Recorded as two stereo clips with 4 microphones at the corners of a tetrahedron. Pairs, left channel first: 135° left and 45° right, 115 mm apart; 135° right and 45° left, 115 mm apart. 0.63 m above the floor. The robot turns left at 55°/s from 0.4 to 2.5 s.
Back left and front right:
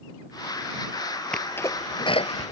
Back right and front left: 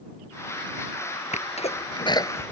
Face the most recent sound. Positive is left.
turn(degrees=155)